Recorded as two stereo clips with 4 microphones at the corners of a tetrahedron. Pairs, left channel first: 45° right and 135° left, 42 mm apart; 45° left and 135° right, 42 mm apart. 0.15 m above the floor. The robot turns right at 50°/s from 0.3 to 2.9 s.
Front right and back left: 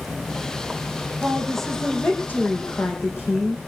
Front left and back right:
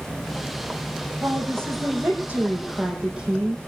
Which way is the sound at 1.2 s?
150° right.